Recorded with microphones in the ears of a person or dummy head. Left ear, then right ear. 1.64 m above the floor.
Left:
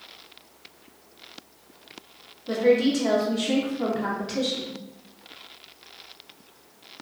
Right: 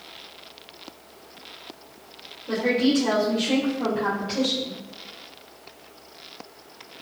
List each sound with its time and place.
2.5 s a woman speaking: 65° left (ahead or behind), 1.4 m